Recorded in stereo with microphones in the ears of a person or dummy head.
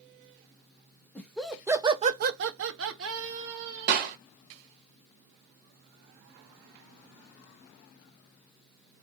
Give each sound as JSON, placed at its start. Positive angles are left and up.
{"t": 1.1, "sound": "laughter", "side_deg": 5, "distance_m": 1.1}
{"t": 3.9, "sound": "a clap", "side_deg": -50, "distance_m": 1.3}